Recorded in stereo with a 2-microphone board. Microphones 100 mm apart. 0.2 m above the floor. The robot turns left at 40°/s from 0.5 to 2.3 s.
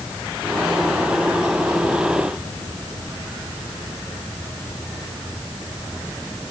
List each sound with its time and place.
Only background noise.